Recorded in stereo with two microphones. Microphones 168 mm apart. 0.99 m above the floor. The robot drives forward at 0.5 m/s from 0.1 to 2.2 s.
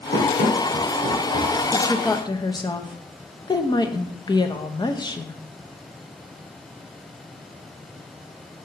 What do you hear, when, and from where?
0.1 s running footsteps: 55° left (ahead or behind), 3 m; by 1.6 s 70° left (ahead or behind), 3 m
1.7 s a woman speaking: 20° left (ahead or behind), 0.9 m; by 5.4 s 25° left (ahead or behind), 0.7 m